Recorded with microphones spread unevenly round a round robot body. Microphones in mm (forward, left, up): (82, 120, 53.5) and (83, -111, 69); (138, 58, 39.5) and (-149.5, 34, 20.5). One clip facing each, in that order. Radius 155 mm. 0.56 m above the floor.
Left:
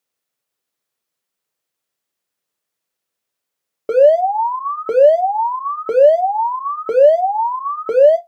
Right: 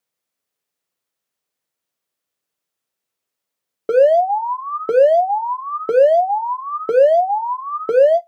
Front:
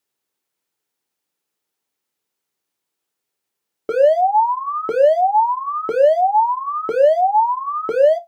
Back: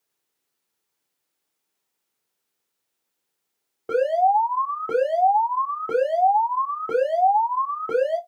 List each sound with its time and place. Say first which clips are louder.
3.9 s an alarm: left 1 dB, front 6 dB; 10° right, 0.7 m